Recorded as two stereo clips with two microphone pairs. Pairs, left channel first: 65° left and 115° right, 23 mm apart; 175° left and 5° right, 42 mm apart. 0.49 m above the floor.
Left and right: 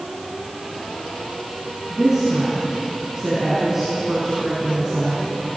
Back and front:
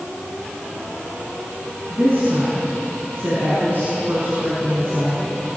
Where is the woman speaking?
40° right, 6 m.